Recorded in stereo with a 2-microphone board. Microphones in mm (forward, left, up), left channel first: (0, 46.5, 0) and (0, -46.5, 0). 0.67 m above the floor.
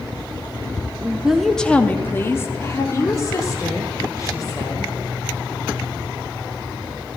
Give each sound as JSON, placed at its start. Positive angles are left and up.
{"t": 1.0, "sound": "a woman speaking", "side_deg": -20, "distance_m": 0.7}